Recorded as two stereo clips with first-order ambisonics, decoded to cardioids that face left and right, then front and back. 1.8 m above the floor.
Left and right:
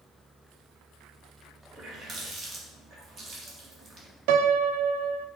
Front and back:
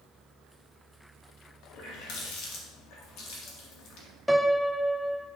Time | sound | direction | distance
1.7 | a running tap | 30° right | 2.5 m
4.3 | a piano | 90° right | 0.6 m